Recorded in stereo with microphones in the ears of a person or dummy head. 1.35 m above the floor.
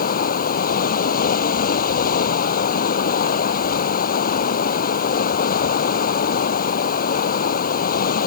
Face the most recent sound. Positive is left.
turn(degrees=55)  # may be behind; listen again after turning